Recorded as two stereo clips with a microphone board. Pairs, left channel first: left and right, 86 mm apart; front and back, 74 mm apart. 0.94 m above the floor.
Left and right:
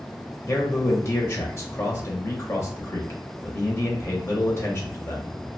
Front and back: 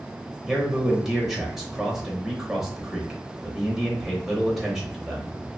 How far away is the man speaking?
About 0.7 m.